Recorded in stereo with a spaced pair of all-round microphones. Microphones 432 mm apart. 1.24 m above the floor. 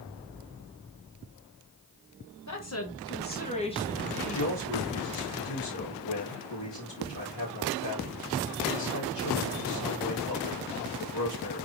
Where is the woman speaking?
40° left (ahead or behind), 1.3 m; by 4.5 s centre (ahead or behind), 1.7 m.